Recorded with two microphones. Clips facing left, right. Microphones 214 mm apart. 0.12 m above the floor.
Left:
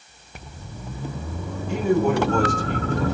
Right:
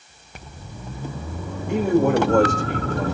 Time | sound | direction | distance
1.7 | a man speaking | 65° right (ahead or behind) | 9 m